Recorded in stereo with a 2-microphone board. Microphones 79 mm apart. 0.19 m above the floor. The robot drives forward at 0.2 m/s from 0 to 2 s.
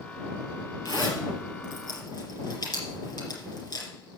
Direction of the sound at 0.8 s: 45° left (ahead or behind).